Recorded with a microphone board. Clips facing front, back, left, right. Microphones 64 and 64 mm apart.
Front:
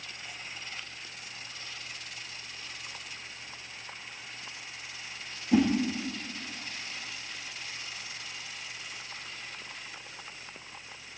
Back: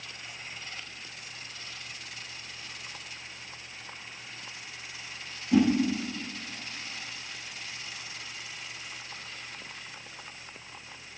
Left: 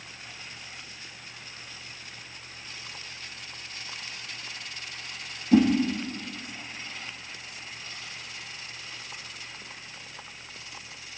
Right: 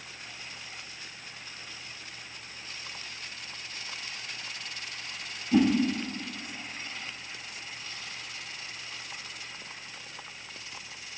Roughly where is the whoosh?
Left.